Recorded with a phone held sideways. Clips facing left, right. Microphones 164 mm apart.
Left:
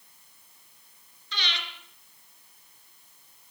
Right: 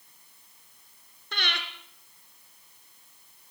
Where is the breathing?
55° right (ahead or behind), 2.5 m.